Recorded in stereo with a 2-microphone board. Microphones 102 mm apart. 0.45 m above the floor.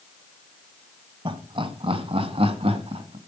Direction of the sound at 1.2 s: 55° right (ahead or behind).